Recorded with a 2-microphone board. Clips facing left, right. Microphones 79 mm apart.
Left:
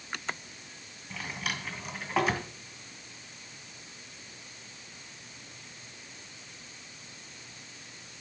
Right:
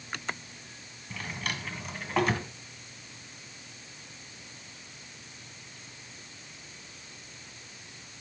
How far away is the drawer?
About 1.8 m.